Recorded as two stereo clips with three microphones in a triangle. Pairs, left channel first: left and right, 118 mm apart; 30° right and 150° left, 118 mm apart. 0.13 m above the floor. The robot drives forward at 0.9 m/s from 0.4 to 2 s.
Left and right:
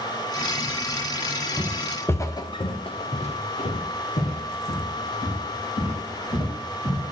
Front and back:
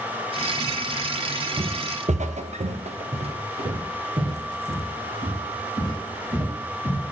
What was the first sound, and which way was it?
Footsteps, 165° right.